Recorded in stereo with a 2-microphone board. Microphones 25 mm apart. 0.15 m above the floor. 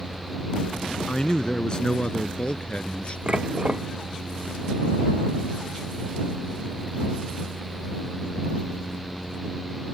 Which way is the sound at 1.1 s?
30° left (ahead or behind).